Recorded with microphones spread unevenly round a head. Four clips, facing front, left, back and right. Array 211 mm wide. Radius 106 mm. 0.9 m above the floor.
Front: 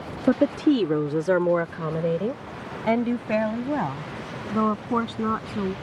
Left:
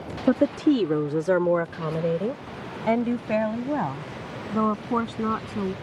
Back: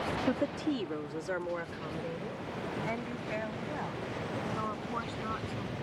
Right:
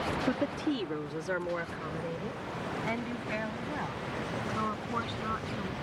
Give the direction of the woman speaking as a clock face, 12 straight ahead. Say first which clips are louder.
Left 14 dB, front 14 dB; 11 o'clock.